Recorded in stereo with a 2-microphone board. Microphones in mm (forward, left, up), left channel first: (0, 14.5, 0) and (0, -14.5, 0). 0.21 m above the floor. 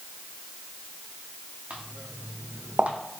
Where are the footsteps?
45° right (ahead or behind), 1.2 m; by 3.0 s 50° right (ahead or behind), 0.5 m.